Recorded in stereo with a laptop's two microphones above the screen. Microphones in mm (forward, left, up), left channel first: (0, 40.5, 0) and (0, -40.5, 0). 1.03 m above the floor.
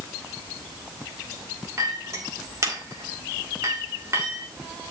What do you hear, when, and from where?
1.8 s a clink: 35° right (ahead or behind), 1.4 m